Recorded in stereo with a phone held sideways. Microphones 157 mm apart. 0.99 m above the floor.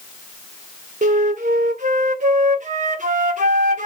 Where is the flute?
50° right (ahead or behind), 0.7 m.